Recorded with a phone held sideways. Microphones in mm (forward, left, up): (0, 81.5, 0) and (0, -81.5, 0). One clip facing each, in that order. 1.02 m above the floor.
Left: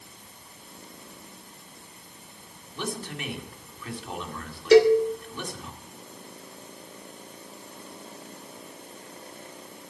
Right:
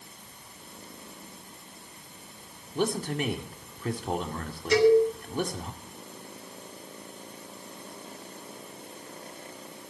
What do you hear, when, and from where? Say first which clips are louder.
2.8 s a man speaking: right 6 dB; 45° right (ahead or behind), 2.5 m
4.7 s a cowbell: left 3 dB; 75° left (ahead or behind), 1.7 m